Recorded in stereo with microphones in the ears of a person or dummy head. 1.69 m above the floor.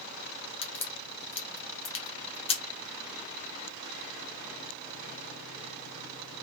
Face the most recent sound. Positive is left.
turn(degrees=25)  # may be behind; listen again after turning